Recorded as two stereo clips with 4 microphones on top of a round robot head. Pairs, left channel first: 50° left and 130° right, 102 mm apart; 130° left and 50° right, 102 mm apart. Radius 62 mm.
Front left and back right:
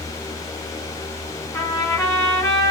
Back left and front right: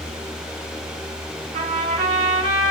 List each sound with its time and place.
1.5 s a trumpet: 20° right, 3.5 m